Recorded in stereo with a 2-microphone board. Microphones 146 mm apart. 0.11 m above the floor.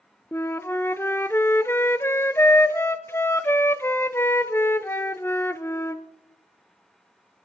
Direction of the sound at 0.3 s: 20° left (ahead or behind).